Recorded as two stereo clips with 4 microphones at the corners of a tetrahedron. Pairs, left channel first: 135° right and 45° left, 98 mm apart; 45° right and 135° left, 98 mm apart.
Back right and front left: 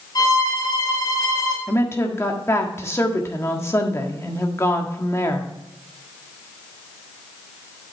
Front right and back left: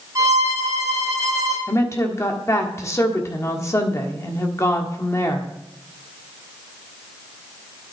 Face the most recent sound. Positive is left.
turn(degrees=-85)